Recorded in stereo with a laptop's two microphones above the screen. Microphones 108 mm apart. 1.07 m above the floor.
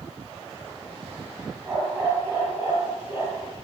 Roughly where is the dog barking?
Right.